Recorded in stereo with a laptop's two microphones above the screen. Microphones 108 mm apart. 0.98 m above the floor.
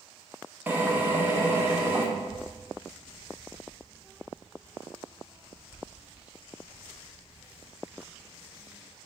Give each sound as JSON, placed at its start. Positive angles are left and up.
{"t": 0.7, "sound": "a drill", "side_deg": -20, "distance_m": 1.2}
{"t": 2.2, "sound": "a child speaking", "side_deg": -15, "distance_m": 0.5}